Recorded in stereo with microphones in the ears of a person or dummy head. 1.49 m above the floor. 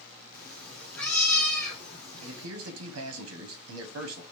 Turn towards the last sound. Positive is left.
turn(degrees=-75)  # may be behind; listen again after turning